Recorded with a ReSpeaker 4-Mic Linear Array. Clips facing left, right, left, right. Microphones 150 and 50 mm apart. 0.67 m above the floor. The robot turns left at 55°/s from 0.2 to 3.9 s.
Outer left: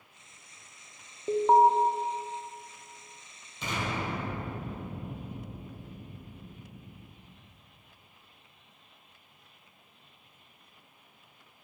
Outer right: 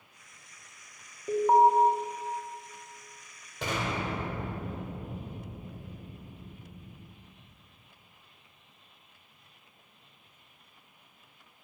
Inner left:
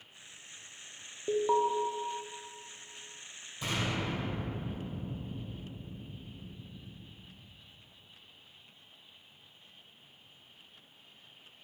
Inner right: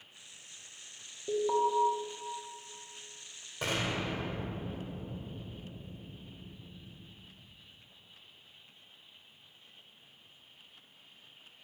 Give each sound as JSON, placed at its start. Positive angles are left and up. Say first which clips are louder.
{"t": 1.3, "sound": "an alarm", "louder": "even, inner left 1 dB", "side_deg": 25, "distance_m": 0.9}
{"t": 3.6, "sound": "an explosion", "louder": "outer right 1 dB, inner right 1 dB", "side_deg": -75, "distance_m": 2.0}